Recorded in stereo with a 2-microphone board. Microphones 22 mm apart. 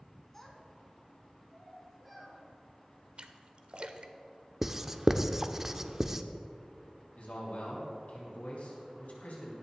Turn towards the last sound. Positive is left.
turn(degrees=75)  # may be behind; listen again after turning